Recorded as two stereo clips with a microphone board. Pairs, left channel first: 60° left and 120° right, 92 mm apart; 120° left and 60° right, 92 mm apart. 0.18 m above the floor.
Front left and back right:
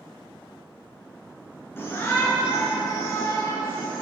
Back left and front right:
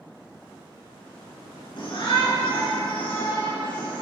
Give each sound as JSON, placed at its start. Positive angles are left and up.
{"t": 1.8, "sound": "a shout", "azimuth_deg": 120, "distance_m": 3.0}